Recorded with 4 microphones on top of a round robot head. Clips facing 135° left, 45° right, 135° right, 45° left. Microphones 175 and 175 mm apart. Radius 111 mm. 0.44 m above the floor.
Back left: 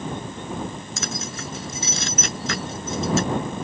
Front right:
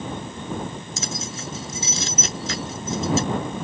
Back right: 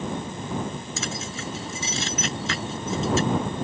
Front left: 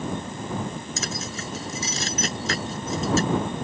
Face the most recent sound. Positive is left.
turn(degrees=100)